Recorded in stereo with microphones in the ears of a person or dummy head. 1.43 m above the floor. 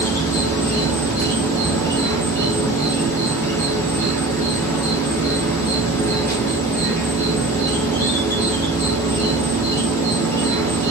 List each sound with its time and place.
0.0 s an insect: 10° left (ahead or behind), 2.5 m